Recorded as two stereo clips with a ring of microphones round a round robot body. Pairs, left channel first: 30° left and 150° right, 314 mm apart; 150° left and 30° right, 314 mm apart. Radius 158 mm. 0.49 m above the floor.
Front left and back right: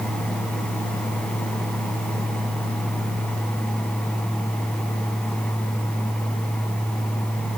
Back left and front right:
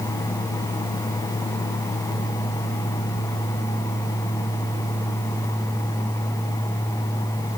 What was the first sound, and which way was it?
Only background noise.